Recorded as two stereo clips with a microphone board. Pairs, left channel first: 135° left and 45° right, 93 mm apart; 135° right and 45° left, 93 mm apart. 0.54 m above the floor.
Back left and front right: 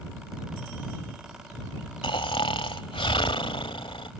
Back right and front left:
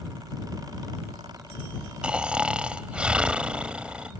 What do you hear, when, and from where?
2.0 s snoring: 125° left